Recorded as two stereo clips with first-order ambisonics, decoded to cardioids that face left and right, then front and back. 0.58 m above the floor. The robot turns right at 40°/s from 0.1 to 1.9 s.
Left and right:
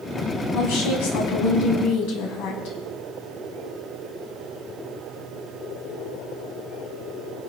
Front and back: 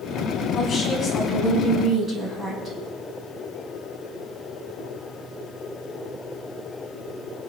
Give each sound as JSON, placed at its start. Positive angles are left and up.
{"t": 0.5, "sound": "a woman speaking", "azimuth_deg": 55, "distance_m": 4.5}